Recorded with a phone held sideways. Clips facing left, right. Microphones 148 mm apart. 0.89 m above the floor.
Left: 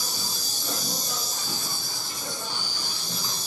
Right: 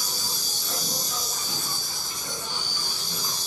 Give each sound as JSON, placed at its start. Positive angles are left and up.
{"t": 0.0, "sound": "an insect", "side_deg": 70, "distance_m": 1.4}